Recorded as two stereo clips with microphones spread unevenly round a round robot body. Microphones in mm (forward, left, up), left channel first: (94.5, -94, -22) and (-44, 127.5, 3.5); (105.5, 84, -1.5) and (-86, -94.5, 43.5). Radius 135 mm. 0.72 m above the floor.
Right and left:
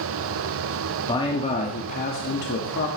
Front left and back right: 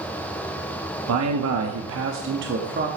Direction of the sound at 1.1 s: 125° right.